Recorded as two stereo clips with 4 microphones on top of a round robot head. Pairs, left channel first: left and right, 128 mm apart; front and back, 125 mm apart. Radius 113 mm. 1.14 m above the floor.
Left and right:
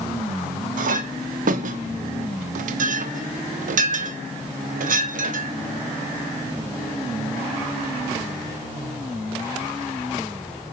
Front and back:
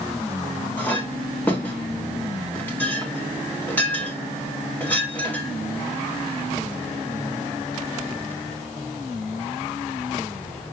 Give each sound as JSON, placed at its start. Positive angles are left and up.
{"t": 0.8, "sound": "a clink", "azimuth_deg": -80, "distance_m": 0.8}